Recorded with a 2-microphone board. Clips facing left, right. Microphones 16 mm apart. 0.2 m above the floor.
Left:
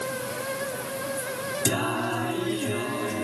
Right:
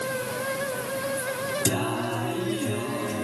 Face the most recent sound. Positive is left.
turn(degrees=10)  # may be behind; listen again after turning